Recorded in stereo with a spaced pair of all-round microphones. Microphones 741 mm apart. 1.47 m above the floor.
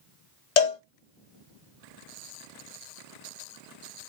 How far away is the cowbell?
About 0.8 m.